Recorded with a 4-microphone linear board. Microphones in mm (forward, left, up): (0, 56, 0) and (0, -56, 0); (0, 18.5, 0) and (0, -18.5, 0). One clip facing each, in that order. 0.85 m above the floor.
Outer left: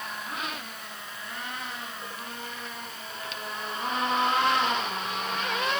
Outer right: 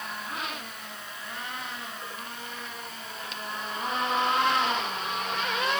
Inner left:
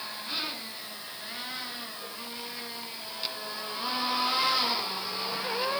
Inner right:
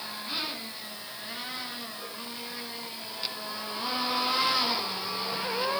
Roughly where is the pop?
I don't hear a pop.